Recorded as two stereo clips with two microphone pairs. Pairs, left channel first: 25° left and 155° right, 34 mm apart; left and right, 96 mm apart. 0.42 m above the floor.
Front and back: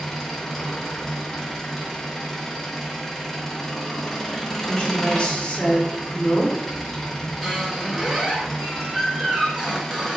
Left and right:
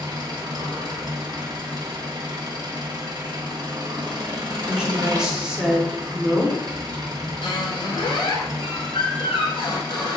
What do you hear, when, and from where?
0.0 s an engine running: 60° right, 0.7 m
4.7 s a woman speaking: 10° right, 0.9 m
7.4 s a squeak: 125° left, 1.1 m